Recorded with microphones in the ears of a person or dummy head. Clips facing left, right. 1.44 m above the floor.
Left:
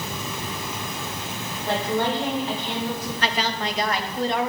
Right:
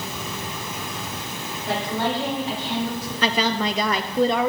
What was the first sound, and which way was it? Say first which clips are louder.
A woman speaking: left 1 dB; 50° left (ahead or behind).